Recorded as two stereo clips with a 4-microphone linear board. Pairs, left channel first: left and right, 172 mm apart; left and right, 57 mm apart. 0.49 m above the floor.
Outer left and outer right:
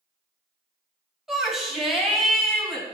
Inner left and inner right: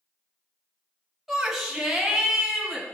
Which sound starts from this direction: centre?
A shout, at 1.3 s.